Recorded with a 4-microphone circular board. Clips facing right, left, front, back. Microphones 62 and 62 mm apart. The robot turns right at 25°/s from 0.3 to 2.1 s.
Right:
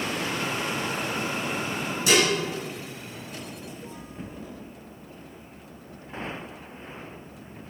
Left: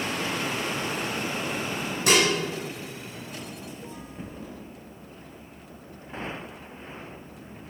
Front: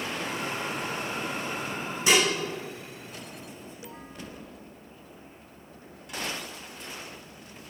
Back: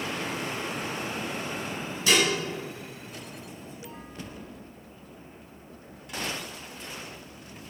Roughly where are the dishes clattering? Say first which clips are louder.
Even, front 1 dB; ahead left.